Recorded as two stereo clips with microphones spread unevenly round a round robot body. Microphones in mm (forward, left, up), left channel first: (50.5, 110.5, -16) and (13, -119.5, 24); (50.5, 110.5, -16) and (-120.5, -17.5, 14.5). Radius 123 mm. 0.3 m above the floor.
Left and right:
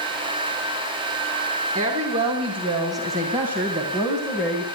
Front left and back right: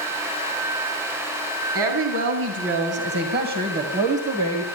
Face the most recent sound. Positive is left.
turn(degrees=150)